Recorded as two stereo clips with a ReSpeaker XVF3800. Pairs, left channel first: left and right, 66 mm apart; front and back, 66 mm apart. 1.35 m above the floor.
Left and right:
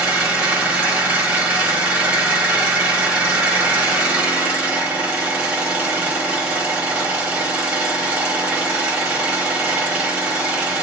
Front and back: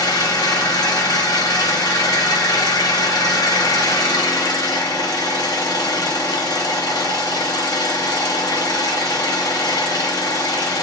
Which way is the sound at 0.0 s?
20° right.